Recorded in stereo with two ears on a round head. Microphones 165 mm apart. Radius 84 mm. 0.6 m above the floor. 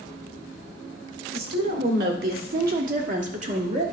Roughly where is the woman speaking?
Right.